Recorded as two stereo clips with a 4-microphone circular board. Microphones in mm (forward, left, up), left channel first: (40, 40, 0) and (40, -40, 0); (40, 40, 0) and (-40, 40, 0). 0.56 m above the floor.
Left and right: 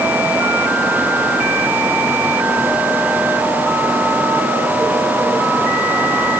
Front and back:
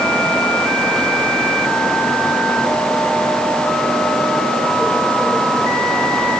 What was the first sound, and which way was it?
Only background noise.